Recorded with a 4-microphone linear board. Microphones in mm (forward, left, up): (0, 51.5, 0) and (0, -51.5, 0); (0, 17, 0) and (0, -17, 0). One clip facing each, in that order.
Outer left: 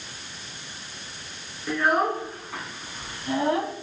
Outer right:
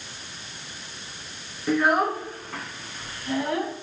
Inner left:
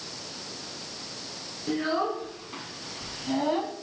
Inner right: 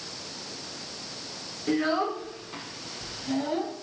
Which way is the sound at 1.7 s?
10° right (ahead or behind).